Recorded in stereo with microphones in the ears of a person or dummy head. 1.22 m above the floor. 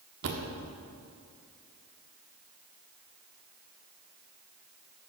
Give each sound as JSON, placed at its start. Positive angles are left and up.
{"t": 0.2, "sound": "a thud", "side_deg": -65, "distance_m": 1.4}